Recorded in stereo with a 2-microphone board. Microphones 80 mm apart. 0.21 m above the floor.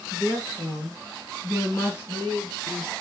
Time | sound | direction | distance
0.1 | a woman speaking | 45° left (ahead or behind) | 2 m